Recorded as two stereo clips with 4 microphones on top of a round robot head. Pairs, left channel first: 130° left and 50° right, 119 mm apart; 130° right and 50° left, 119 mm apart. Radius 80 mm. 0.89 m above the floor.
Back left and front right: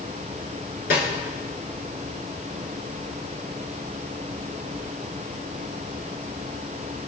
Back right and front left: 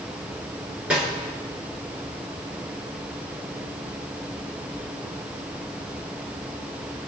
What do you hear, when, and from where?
0.9 s a snare drum: 130° left, 6.5 m